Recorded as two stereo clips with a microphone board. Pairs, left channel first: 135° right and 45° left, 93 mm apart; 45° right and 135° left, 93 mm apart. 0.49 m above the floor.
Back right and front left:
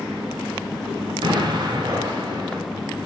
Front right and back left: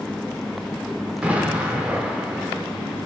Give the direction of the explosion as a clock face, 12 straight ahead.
10 o'clock.